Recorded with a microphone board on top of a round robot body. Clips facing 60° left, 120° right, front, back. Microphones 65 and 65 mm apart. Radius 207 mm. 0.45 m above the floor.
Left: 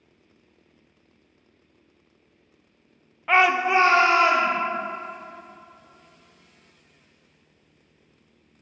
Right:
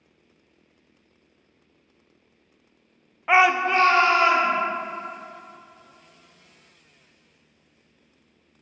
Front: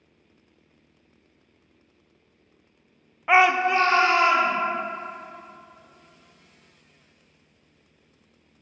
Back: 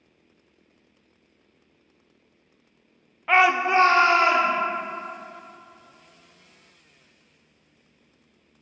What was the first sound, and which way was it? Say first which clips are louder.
A shout: right 1 dB, even; 60° right.